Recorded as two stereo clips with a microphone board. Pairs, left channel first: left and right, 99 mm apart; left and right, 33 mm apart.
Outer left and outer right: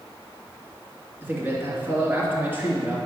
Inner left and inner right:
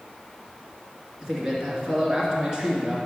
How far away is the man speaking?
About 2.5 m.